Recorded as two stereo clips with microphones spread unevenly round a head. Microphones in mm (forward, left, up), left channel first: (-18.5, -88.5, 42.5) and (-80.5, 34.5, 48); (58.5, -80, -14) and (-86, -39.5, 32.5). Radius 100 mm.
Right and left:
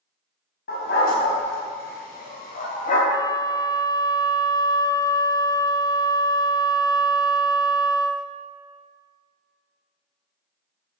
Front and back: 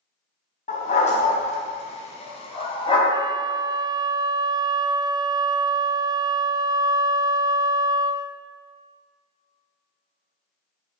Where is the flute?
125° right, 0.6 m.